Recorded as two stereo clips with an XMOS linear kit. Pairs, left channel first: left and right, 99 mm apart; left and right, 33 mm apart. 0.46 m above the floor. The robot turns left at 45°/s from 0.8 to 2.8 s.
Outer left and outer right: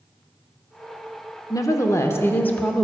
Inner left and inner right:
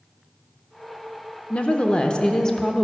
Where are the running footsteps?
No running footsteps in this recording.